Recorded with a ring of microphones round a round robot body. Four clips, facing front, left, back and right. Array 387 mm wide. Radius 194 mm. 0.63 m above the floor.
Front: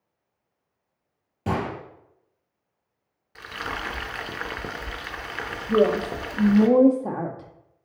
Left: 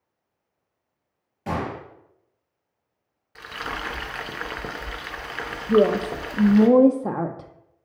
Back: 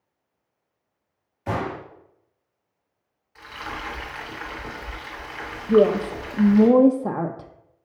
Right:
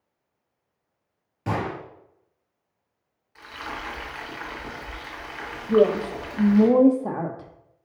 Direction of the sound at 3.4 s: 45° left.